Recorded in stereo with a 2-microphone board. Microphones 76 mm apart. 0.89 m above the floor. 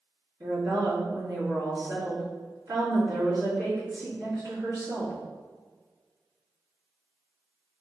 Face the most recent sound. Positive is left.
turn(degrees=-50)  # may be behind; listen again after turning